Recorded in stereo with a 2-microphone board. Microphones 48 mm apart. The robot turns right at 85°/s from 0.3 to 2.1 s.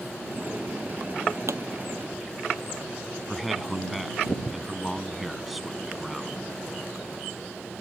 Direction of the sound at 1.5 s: 80° right.